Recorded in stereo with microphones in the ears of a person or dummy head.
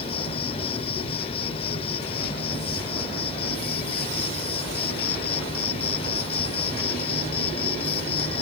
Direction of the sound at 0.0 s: 35° left (ahead or behind).